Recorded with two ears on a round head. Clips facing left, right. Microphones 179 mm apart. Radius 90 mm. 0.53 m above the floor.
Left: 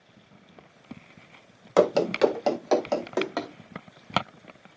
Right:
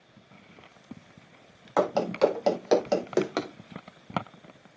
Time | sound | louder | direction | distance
1.8 | running footsteps | left 3 dB | 35° left (ahead or behind) | 0.7 m